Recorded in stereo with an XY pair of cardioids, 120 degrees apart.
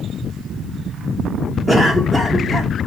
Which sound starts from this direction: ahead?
A cough, at 1.7 s.